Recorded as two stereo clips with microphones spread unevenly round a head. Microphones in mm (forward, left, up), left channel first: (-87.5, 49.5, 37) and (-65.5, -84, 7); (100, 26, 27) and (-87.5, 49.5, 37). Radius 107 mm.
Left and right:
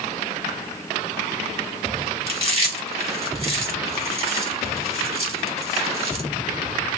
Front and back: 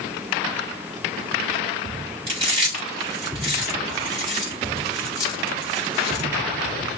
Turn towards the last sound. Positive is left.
turn(degrees=-120)